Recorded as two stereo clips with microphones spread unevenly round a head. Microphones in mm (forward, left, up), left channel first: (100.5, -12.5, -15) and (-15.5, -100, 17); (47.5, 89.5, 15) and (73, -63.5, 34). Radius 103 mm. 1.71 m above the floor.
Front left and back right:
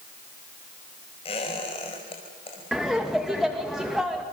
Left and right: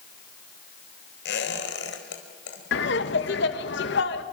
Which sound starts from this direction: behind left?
Laughter, at 2.7 s.